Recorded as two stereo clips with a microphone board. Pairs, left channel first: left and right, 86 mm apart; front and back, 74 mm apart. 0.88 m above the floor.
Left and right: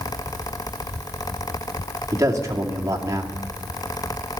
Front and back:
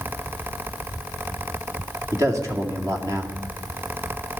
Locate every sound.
2.1 s a man speaking: 140° right, 2.5 m